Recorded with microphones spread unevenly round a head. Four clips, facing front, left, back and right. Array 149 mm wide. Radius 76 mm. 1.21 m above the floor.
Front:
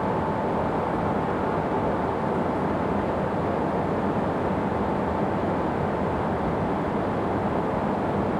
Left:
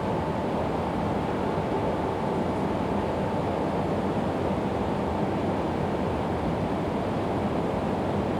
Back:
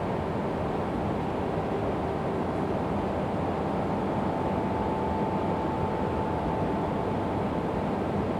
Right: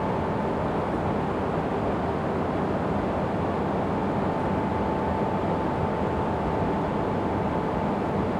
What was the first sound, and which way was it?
Only background noise.